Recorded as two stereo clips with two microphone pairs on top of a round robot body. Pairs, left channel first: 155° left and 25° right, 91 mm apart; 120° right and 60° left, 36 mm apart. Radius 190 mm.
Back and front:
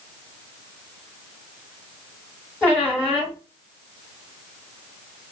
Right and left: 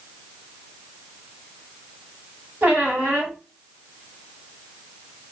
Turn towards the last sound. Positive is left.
turn(degrees=85)